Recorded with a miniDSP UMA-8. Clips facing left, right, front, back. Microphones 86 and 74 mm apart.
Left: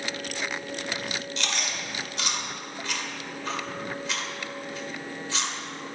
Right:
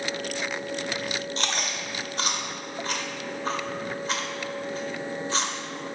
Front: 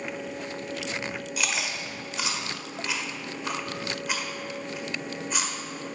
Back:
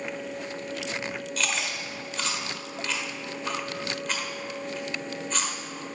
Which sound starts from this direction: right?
Chewing, at 1.4 s.